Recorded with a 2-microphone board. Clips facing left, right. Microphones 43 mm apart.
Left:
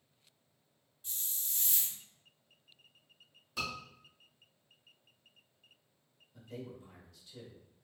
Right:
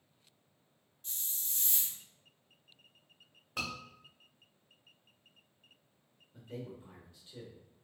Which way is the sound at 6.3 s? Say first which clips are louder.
Right 1 dB; 30° right (ahead or behind).